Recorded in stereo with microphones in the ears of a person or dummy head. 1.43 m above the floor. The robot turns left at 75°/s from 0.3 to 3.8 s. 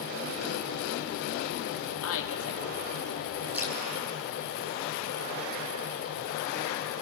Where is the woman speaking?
85° left, 3 m; by 3.4 s 20° right, 3 m.